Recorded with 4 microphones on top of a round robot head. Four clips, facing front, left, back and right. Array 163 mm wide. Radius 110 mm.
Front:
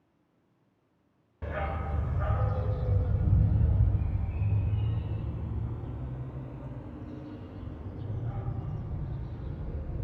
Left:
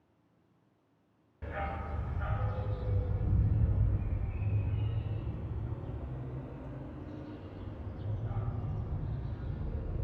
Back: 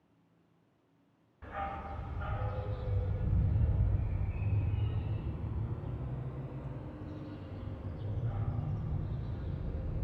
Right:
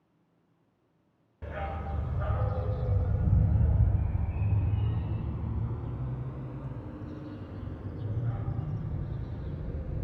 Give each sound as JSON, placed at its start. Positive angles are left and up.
{"t": 1.4, "sound": "a dog barking", "azimuth_deg": -10, "distance_m": 1.1}